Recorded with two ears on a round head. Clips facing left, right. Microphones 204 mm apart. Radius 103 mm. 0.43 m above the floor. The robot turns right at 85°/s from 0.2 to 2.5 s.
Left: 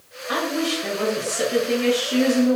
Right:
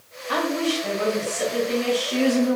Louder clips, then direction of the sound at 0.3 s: Right 1 dB; 20° left.